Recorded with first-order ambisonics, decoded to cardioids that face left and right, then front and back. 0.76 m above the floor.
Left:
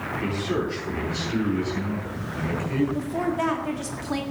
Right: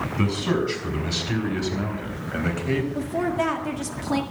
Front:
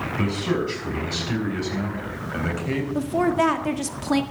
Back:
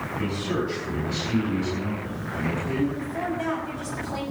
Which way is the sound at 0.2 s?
65° right.